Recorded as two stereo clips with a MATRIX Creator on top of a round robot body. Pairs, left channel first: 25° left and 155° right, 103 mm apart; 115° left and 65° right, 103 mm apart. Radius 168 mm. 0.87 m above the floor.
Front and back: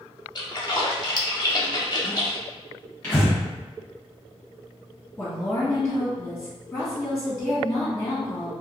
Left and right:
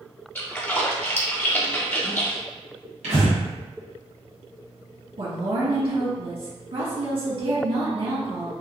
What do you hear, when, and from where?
0.3 s a splash: 50° left, 1.1 m
3.0 s breathing: 50° right, 1.3 m
5.2 s a woman speaking: 50° right, 1.3 m